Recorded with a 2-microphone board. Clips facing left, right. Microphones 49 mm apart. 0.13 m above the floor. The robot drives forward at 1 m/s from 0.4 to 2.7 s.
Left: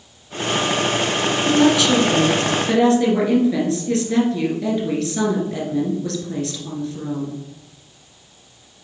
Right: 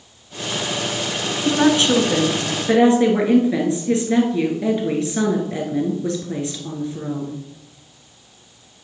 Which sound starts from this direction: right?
A woman speaking, at 1.4 s.